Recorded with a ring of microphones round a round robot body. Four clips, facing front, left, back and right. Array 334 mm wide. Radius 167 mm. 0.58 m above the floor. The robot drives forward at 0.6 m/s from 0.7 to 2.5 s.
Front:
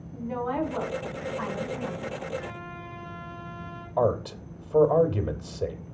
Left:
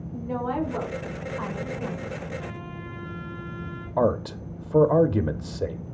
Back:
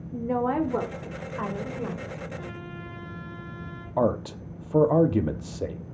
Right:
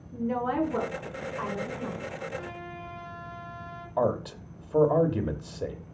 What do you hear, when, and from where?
0.1 s a woman speaking: 170° right, 1.7 m
2.4 s a trumpet: 130° right, 4.5 m
4.0 s a man speaking: 130° left, 0.9 m